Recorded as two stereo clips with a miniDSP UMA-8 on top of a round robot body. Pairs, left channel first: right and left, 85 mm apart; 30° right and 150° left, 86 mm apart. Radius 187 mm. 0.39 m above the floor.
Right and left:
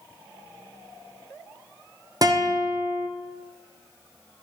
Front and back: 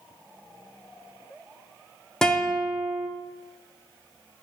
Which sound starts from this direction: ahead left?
A guitar, at 2.2 s.